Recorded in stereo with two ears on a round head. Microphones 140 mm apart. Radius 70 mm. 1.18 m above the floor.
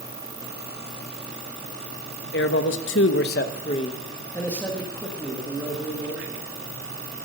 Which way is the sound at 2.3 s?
70° left (ahead or behind).